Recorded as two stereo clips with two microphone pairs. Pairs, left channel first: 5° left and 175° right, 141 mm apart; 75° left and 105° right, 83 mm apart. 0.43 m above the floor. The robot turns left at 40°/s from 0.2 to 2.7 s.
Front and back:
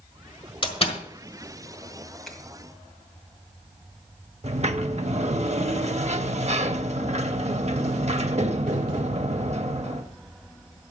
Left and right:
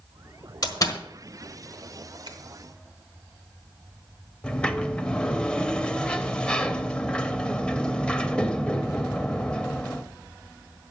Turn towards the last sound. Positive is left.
turn(degrees=150)